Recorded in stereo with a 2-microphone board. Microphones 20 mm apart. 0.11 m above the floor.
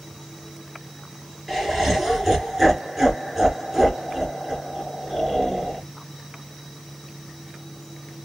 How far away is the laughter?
About 1.7 m.